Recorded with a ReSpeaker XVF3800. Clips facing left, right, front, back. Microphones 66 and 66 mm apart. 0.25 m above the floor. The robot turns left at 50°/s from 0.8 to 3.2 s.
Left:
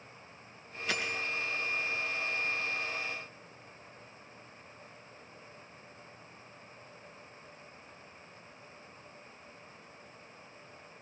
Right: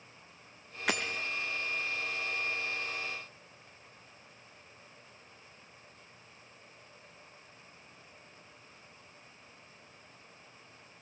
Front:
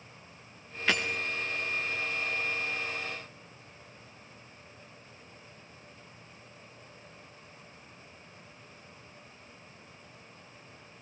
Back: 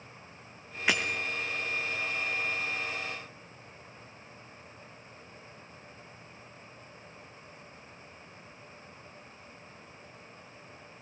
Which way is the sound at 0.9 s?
105° right.